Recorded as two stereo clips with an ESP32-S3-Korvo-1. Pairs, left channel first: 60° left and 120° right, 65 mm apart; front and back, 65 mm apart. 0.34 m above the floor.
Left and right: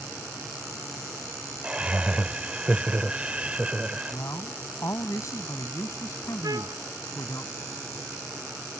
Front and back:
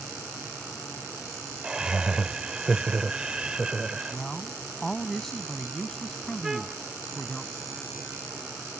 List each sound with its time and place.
1.6 s laughter: 135° right
4.1 s a man speaking: 85° left
6.4 s a trumpet: 100° right